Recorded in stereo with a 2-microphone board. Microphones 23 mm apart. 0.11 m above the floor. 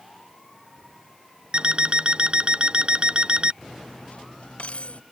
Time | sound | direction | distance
1.5 | an alarm clock | 40° right (ahead or behind) | ?
3.6 | cutlery clinking | 55° left (ahead or behind) | ?